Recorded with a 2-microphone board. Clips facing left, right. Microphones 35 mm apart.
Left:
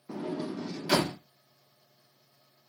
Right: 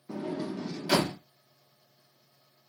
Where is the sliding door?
15° left (ahead or behind), 1.0 m.